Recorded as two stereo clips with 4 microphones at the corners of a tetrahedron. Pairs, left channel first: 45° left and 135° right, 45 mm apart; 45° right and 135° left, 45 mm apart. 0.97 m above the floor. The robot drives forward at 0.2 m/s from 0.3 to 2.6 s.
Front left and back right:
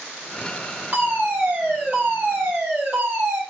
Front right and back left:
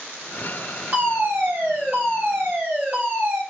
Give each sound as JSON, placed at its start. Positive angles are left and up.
{"t": 0.9, "sound": "a fire alarm", "azimuth_deg": -175, "distance_m": 4.5}